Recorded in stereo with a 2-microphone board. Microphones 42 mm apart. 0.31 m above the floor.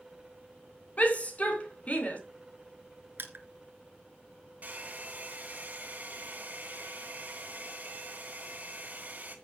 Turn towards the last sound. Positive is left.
turn(degrees=-40)  # may be behind; listen again after turning